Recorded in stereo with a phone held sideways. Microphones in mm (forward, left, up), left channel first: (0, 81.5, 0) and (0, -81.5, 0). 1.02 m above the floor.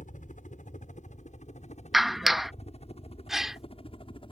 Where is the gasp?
Centre (ahead or behind).